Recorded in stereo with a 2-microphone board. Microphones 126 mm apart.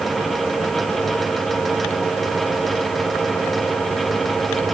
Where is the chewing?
I don't hear chewing.